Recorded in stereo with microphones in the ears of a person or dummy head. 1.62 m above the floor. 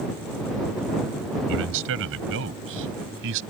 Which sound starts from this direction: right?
A man speaking, at 1.5 s.